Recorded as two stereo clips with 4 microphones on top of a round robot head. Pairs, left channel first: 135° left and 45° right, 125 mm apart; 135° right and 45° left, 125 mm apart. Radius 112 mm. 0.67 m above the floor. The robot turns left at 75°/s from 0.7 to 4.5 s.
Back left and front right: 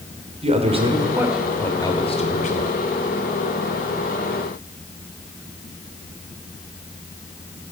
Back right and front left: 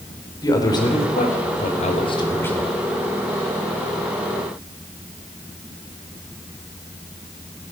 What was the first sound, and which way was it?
A man speaking, 80° right.